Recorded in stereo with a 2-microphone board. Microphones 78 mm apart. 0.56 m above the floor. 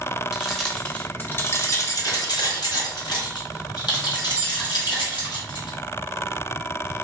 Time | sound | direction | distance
0.3 | keys jangling | 5° right (ahead or behind) | 0.9 m